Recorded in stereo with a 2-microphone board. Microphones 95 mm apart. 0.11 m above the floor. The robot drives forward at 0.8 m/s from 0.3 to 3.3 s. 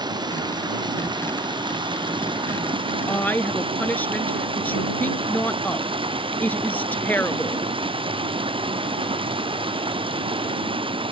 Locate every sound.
0.0 s running water: 45° right (ahead or behind); by 11.1 s 65° right (ahead or behind)
3.1 s a woman speaking: 15° left (ahead or behind); by 7.7 s 20° left (ahead or behind)